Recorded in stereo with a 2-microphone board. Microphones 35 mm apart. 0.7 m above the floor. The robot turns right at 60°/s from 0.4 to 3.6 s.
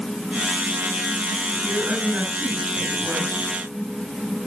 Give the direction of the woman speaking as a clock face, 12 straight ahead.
3 o'clock.